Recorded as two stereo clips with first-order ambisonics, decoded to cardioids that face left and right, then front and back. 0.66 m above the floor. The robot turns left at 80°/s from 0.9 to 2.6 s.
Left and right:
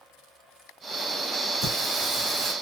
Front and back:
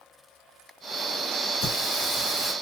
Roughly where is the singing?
Ahead.